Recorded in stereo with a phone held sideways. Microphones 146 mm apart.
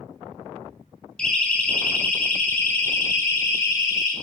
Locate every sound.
1.2 s a siren: 5° left (ahead or behind), 6.5 m; by 4.1 s 20° left (ahead or behind), 8.5 m